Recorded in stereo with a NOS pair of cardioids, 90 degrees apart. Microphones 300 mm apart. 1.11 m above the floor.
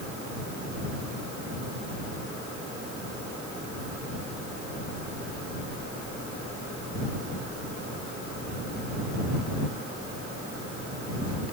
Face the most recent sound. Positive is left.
No sound to turn to.